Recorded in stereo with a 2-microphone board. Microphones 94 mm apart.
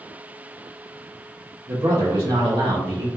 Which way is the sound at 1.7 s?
40° right (ahead or behind).